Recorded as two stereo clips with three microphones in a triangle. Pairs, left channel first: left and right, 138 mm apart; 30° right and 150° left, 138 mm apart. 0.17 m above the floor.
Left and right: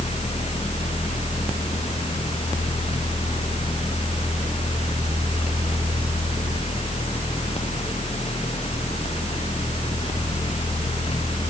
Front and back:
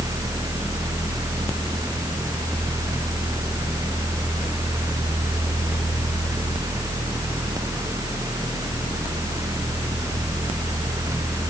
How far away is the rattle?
I don't hear a rattle.